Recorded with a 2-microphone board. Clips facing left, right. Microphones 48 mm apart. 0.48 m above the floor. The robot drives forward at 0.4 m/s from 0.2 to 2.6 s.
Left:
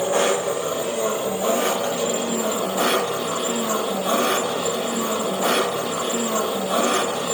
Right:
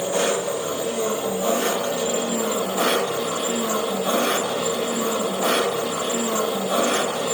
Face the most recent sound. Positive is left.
turn(degrees=15)  # may be behind; listen again after turning